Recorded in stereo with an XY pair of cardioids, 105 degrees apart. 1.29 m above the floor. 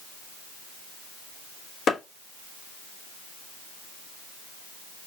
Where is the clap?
60° left, 1.3 m.